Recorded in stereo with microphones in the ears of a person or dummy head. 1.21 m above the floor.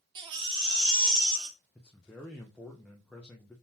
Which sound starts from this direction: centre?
A man speaking, at 1.8 s.